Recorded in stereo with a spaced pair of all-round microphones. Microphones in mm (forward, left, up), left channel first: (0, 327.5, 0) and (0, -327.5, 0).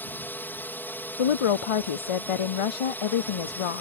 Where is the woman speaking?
55° left (ahead or behind).